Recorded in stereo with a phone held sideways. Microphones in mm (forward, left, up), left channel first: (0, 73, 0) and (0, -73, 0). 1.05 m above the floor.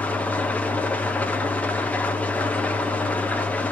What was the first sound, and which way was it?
An engine running, 10° left (ahead or behind).